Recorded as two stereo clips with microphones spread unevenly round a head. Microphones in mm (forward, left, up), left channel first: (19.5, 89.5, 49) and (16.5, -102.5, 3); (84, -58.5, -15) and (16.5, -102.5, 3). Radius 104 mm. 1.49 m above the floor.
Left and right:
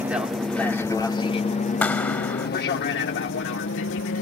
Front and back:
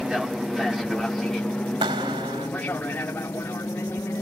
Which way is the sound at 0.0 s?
55° right.